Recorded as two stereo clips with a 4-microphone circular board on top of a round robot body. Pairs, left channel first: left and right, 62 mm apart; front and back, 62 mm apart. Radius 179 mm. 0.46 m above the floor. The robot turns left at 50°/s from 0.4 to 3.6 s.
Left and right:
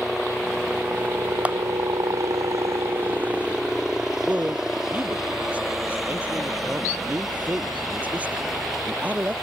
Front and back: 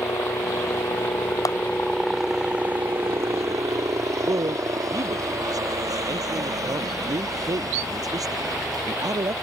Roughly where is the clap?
Ahead.